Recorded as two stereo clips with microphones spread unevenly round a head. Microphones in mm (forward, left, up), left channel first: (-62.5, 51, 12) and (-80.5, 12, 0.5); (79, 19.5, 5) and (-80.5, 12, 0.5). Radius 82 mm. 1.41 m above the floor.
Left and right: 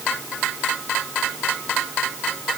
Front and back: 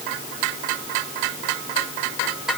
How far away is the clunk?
I don't hear a clunk.